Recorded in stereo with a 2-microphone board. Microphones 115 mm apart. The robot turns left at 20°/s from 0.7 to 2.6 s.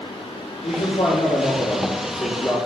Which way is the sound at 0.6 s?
45° left.